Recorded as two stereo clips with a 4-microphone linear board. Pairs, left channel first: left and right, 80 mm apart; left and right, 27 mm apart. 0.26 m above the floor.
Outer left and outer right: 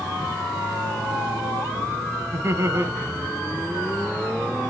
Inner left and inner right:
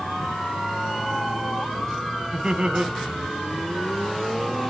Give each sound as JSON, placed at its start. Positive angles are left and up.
{"t": 2.3, "sound": "laughter", "side_deg": -35, "distance_m": 1.7}